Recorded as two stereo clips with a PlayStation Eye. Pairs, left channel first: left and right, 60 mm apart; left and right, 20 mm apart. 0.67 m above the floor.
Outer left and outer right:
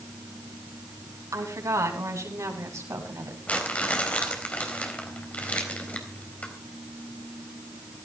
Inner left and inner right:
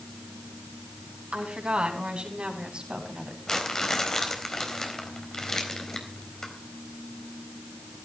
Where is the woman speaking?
65° right (ahead or behind), 5 m; by 3.4 s 55° right (ahead or behind), 4 m.